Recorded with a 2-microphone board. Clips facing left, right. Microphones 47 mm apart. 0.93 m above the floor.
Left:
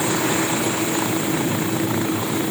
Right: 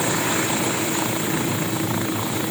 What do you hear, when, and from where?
Only background noise.